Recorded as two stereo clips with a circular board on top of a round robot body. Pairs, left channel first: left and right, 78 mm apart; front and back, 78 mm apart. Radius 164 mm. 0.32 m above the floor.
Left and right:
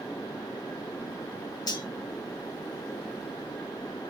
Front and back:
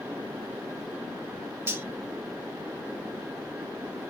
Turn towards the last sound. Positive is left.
turn(degrees=120)